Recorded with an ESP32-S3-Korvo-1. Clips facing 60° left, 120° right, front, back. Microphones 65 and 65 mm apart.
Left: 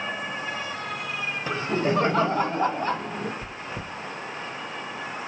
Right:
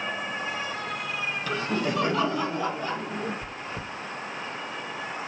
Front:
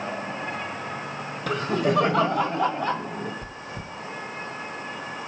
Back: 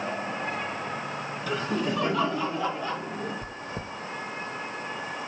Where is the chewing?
140° left, 1.5 m.